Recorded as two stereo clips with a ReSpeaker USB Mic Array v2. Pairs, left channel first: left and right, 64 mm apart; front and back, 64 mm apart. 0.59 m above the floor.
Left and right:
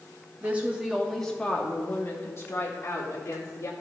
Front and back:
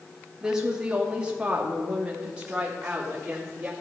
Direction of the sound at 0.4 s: 115° right.